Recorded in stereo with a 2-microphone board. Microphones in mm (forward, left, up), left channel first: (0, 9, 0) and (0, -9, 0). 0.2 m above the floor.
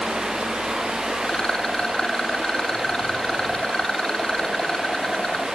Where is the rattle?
45° left (ahead or behind), 1.3 m.